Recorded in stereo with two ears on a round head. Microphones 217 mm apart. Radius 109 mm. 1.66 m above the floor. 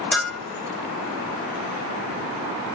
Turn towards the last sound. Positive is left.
turn(degrees=0)  # may be behind; listen again after turning